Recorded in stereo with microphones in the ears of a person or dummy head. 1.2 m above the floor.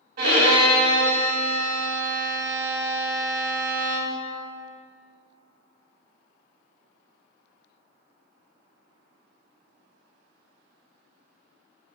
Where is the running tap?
No running tap in this recording.